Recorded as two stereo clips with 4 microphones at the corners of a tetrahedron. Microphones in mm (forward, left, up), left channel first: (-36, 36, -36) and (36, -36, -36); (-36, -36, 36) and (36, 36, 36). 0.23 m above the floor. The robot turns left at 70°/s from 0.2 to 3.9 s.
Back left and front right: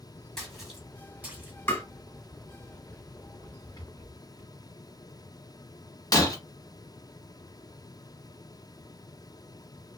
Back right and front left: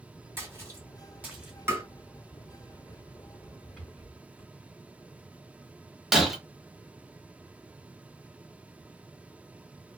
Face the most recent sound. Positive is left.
turn(degrees=130)